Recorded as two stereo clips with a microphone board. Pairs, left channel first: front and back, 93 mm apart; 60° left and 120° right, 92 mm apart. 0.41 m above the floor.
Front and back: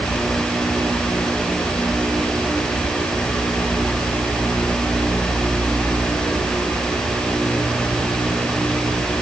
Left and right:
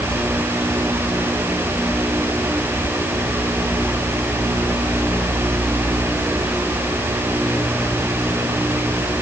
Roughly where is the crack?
No crack in this recording.